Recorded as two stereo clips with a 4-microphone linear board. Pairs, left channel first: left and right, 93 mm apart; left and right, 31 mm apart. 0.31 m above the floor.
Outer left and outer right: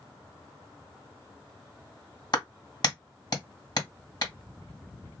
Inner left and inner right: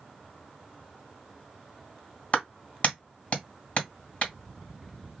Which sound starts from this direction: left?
A clap, at 2.3 s.